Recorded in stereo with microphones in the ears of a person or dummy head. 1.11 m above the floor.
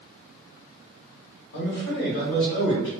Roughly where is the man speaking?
Left.